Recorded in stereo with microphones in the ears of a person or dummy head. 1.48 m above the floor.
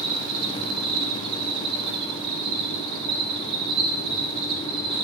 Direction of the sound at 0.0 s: 30° right (ahead or behind).